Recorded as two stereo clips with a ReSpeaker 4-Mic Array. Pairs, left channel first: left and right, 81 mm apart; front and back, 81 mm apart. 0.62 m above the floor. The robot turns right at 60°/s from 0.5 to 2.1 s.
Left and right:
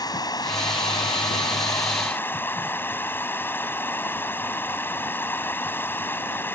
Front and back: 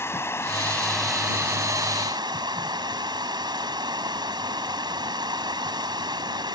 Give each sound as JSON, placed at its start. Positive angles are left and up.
{"t": 0.0, "sound": "running water", "azimuth_deg": 55}